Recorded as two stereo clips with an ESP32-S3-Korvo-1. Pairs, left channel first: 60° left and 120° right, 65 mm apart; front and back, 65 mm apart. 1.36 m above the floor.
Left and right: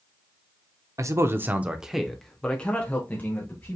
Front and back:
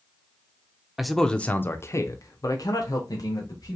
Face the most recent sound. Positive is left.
turn(degrees=0)